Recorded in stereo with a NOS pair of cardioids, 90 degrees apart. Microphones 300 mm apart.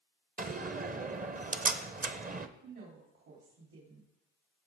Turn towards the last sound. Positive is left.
turn(degrees=-65)